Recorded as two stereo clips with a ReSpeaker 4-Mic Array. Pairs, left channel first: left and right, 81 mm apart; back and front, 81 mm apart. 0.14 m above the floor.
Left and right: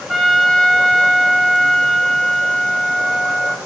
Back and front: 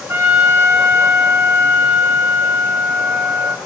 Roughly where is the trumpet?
Ahead.